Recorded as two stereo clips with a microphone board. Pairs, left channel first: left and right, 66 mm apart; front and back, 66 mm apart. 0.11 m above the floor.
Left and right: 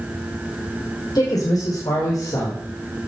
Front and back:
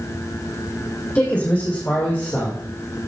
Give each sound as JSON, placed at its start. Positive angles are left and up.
{"t": 1.1, "sound": "a man speaking", "azimuth_deg": 65, "distance_m": 5.5}